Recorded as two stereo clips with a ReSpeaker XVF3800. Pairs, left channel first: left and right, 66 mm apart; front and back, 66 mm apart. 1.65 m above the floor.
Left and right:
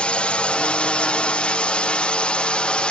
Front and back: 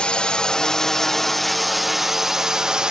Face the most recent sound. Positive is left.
turn(degrees=125)